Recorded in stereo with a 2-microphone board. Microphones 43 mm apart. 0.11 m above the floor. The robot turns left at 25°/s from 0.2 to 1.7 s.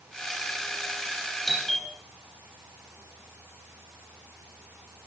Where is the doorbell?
Centre (ahead or behind), 4 m; by 1.9 s 5° left (ahead or behind), 4 m.